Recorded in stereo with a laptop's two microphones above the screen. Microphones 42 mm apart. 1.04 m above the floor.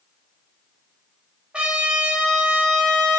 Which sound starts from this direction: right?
A trumpet, at 1.5 s.